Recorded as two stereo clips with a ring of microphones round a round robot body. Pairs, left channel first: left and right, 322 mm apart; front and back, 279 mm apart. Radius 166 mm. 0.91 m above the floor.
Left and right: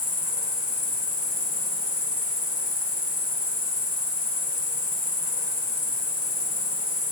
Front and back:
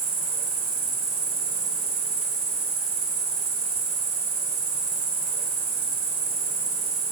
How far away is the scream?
No scream in this recording.